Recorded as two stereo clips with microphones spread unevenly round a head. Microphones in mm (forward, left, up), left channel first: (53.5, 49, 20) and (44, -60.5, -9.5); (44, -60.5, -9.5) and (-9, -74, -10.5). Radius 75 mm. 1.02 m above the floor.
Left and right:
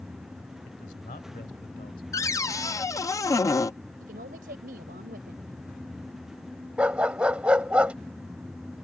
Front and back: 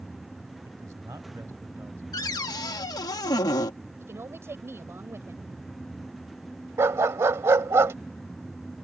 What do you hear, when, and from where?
0.7 s a man speaking: 135° left; by 2.0 s 125° left
2.1 s a cupboard door: 20° left
4.0 s a woman speaking: 125° right
6.8 s a dog barking: 170° left